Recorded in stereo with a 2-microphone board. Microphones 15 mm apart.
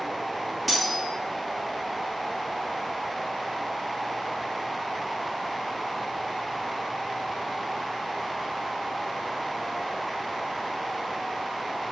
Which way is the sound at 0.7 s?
5° right (ahead or behind).